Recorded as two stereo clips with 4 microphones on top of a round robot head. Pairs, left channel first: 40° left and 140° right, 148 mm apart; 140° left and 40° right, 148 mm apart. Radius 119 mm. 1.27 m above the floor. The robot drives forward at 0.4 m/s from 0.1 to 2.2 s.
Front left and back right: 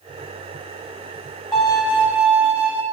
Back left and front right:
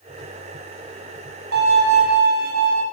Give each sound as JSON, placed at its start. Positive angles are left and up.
{"t": 1.5, "sound": "a violin", "azimuth_deg": -50, "distance_m": 1.4}